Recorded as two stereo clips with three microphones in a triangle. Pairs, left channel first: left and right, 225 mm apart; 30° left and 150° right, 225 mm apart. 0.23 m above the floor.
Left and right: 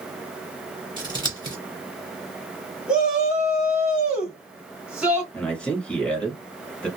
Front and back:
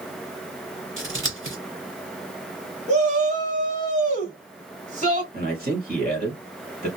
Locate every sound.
1.0 s scissors: 160° right, 1.8 m
2.9 s a shout: 170° right, 1.3 m
5.3 s a man speaking: 175° left, 1.7 m